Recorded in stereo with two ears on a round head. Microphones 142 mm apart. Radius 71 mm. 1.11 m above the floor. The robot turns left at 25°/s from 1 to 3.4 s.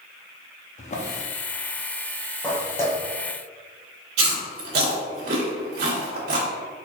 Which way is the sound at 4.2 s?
65° right (ahead or behind).